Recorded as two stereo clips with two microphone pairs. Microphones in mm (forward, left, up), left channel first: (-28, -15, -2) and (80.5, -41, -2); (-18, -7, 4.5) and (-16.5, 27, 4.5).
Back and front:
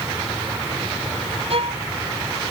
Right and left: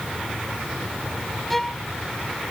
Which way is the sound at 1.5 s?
10° right.